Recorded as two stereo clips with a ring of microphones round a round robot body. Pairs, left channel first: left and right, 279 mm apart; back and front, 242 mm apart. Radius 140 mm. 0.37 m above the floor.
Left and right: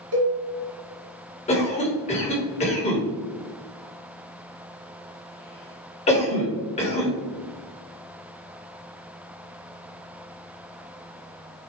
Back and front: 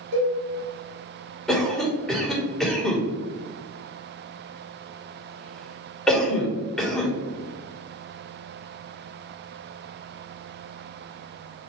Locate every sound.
0.1 s a cowbell: 50° right, 1.4 m
1.5 s a cough: 95° left, 1.5 m